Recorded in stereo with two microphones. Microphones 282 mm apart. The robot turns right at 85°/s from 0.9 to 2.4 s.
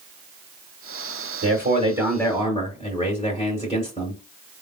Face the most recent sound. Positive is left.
turn(degrees=25)